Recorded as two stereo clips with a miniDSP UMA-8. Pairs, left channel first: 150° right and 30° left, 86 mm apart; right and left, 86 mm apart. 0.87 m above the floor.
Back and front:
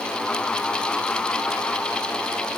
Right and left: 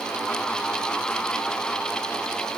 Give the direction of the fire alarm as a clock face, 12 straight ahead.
I don't hear a fire alarm.